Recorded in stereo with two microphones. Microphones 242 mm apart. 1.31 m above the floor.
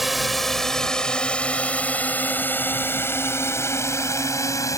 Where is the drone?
Centre (ahead or behind); by 4.8 s 15° left (ahead or behind).